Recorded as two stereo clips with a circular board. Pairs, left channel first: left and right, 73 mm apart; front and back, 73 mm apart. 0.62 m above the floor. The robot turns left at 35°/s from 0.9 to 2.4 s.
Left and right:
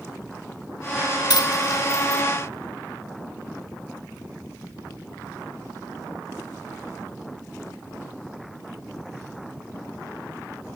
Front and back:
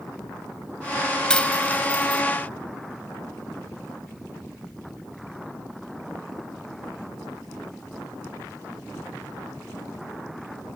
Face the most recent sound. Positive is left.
turn(degrees=40)